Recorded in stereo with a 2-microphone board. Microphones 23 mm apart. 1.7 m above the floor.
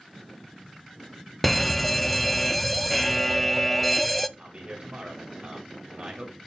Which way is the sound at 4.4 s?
45° right (ahead or behind).